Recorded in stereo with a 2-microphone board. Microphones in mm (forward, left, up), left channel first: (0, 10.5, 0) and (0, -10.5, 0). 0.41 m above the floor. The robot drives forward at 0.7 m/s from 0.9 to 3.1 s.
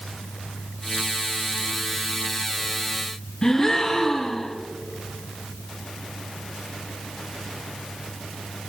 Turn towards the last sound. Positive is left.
turn(degrees=30)  # may be behind; listen again after turning